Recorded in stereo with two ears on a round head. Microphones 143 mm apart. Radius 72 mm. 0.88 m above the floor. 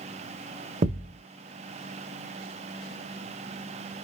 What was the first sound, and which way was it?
A thud, 50° right (ahead or behind).